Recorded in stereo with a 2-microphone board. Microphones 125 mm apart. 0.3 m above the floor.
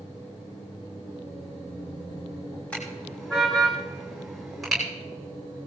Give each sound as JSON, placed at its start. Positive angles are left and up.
{"t": 2.7, "sound": "a car horn", "side_deg": 10, "distance_m": 9.0}